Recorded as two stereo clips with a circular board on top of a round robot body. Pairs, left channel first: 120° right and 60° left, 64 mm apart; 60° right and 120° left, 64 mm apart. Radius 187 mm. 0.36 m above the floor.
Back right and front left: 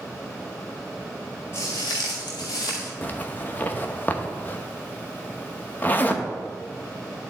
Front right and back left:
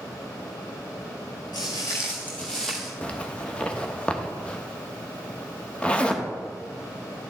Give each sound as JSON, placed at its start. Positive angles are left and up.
{"t": 1.5, "sound": "footsteps", "azimuth_deg": -70, "distance_m": 0.5}
{"t": 3.0, "sound": "a zipper", "azimuth_deg": -110, "distance_m": 1.1}